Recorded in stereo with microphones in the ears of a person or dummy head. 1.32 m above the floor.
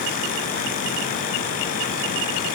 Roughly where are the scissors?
No scissors in this recording.